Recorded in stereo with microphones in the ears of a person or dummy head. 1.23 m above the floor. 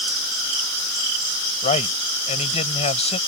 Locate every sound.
1.6 s a man speaking: 35° left (ahead or behind)